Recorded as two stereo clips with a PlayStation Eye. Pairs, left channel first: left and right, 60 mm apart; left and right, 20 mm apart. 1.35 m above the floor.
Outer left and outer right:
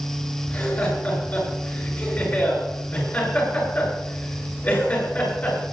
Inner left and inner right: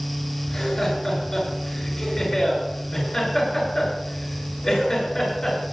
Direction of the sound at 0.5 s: 35° left (ahead or behind).